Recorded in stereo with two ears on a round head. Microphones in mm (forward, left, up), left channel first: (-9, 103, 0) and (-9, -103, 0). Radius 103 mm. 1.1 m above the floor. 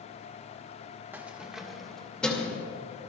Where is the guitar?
No guitar in this recording.